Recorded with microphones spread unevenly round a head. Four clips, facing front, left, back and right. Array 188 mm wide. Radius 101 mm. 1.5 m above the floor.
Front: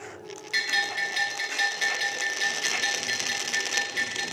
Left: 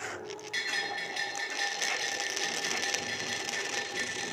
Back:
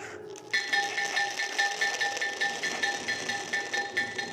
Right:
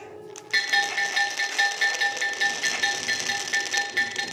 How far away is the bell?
About 2.5 m.